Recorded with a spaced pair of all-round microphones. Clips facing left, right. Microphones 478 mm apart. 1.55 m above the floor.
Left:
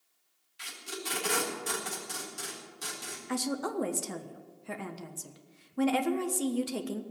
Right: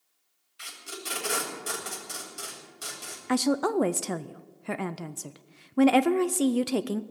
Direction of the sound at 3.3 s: 80° right.